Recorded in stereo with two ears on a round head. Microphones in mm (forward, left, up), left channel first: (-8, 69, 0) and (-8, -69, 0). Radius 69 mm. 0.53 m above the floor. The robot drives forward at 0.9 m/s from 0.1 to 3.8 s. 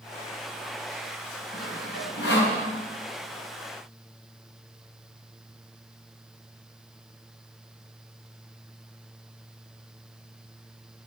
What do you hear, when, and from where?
1.5 s sawing: 80° left, 5 m; by 2.6 s 85° left, 5 m